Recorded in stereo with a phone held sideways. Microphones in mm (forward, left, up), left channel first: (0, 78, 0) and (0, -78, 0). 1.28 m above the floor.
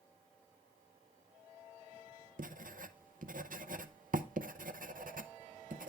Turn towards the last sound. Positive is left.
turn(degrees=-65)  # may be behind; listen again after turning